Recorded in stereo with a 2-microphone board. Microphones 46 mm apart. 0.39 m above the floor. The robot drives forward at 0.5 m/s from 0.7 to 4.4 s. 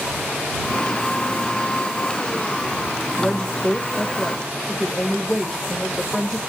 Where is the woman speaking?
20° left (ahead or behind), 1.3 m; by 6.4 s 15° left (ahead or behind), 1.7 m.